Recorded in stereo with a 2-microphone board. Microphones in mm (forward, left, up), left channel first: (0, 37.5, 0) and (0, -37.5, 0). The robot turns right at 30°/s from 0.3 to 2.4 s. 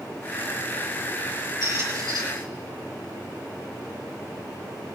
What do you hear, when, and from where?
1.6 s a squeak: 50° right (ahead or behind), 3 m; by 2.2 s 70° right (ahead or behind), 3 m